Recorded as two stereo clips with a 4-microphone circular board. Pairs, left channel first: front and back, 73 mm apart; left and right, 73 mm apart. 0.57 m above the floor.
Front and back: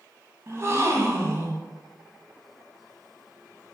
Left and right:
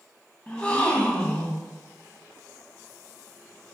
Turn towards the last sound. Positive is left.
turn(degrees=155)